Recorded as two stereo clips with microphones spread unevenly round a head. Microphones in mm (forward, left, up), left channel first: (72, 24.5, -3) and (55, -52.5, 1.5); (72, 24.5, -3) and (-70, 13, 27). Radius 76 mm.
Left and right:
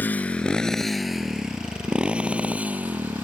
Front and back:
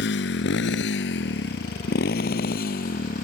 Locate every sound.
0.0 s a motorcycle: 10° left; by 3.2 s 35° right